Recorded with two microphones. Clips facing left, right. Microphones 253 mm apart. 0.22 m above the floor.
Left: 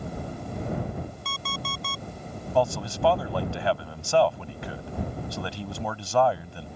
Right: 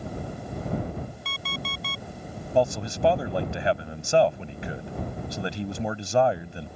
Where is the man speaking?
20° right (ahead or behind).